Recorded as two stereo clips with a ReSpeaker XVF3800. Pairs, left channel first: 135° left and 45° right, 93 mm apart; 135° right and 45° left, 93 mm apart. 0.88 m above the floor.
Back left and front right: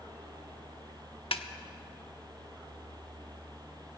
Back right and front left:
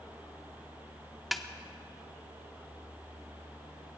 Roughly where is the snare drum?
Behind left.